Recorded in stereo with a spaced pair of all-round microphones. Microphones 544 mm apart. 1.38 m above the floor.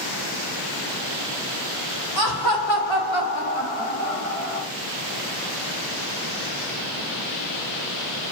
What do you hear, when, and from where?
2.2 s laughter: 40° left (ahead or behind), 2 m; by 4.7 s 80° left, 2.5 m